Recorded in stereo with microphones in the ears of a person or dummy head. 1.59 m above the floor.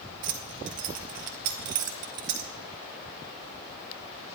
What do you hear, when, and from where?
0.2 s keys jangling: 40° right (ahead or behind), 0.6 m